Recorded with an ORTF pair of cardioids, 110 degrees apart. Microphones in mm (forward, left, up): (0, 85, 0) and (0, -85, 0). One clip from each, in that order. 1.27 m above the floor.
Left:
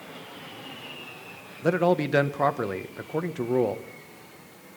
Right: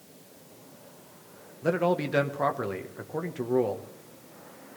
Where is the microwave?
I don't hear a microwave.